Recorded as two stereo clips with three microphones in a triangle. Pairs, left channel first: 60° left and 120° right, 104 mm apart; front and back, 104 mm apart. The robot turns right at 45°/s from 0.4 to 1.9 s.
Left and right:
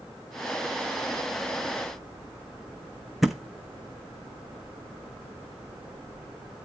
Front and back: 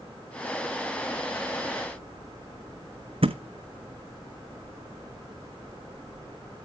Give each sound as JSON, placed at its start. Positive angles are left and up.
{"t": 3.2, "sound": "a thud", "azimuth_deg": 150, "distance_m": 0.9}